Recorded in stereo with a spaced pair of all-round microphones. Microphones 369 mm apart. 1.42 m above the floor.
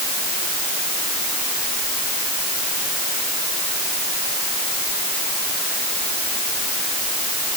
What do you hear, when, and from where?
Only background noise.